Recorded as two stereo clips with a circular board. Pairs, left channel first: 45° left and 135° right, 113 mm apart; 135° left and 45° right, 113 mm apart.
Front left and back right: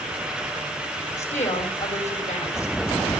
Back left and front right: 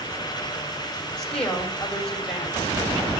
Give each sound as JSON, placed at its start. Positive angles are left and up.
{"t": 1.2, "sound": "a woman speaking", "azimuth_deg": 50, "distance_m": 7.5}